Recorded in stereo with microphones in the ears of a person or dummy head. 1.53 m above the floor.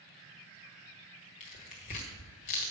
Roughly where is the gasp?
No gasp in this recording.